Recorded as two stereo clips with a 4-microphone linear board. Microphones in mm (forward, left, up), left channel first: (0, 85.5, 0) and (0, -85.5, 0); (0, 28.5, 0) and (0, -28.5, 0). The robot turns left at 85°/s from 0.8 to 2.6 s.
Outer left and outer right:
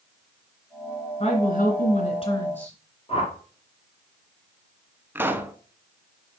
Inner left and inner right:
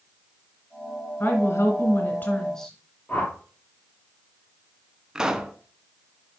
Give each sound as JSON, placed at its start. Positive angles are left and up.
{"t": 1.2, "sound": "a woman speaking", "azimuth_deg": 135, "distance_m": 2.5}
{"t": 3.1, "sound": "a whoosh", "side_deg": 35, "distance_m": 1.8}
{"t": 5.2, "sound": "a pop", "side_deg": -15, "distance_m": 0.5}